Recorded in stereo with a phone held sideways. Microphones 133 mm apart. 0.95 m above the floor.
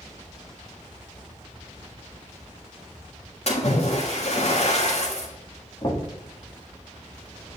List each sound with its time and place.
3.5 s a splash: 55° left (ahead or behind), 1.6 m
5.8 s knocking: 40° left (ahead or behind), 1.7 m